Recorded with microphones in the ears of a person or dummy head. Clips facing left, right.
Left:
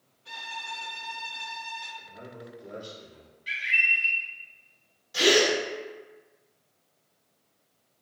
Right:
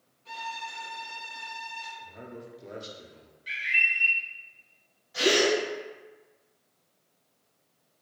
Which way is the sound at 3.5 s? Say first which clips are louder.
Left 1 dB; 5° left (ahead or behind).